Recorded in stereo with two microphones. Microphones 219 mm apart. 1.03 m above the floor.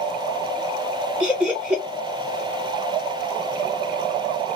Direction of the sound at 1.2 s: 5° right (ahead or behind).